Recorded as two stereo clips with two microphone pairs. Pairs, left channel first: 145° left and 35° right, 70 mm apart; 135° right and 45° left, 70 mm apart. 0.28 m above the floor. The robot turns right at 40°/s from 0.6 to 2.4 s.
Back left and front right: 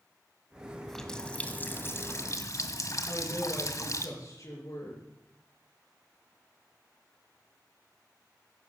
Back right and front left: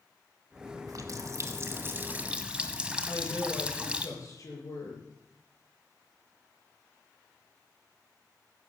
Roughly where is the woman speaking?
Behind.